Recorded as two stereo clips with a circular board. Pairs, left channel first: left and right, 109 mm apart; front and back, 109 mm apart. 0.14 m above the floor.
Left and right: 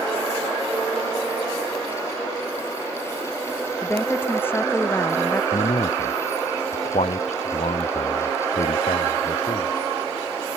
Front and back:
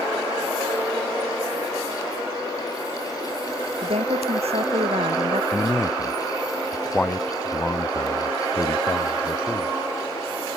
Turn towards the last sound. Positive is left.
turn(degrees=75)